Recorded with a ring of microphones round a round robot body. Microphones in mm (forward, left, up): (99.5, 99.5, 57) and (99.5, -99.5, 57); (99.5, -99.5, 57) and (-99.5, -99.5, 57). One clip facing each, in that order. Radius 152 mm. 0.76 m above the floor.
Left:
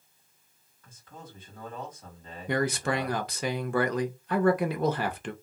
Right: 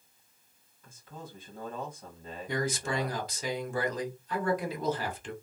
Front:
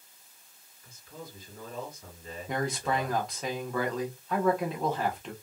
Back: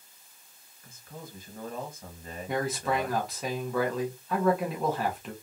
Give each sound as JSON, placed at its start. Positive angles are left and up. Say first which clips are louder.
{"t": 0.8, "sound": "a man speaking", "louder": "right 2 dB, even", "azimuth_deg": -165, "distance_m": 1.5}
{"t": 2.5, "sound": "a man speaking", "louder": "left 5 dB, back 1 dB", "azimuth_deg": 95, "distance_m": 0.6}